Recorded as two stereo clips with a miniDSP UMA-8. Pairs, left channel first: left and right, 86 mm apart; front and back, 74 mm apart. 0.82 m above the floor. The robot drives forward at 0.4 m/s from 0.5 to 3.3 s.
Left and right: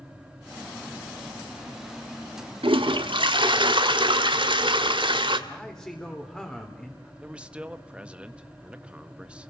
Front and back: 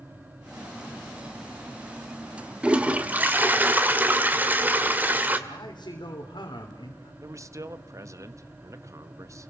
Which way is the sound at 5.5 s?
5° left.